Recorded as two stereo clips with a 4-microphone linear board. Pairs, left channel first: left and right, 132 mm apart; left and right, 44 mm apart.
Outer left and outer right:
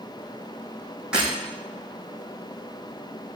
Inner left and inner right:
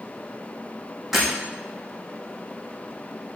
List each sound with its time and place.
1.1 s breaking glass: 5° right (ahead or behind), 6.5 m